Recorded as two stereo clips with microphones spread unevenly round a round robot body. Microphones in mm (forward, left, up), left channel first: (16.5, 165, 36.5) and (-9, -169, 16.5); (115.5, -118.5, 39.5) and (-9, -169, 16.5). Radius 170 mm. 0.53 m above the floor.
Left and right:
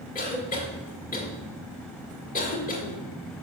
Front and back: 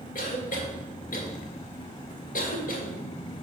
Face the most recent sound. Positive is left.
turn(degrees=20)